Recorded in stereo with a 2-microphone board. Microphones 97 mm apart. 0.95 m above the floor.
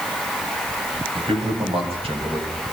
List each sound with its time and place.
1.1 s a man speaking: 80° right, 5 m; by 2.6 s 70° right (ahead or behind), 4 m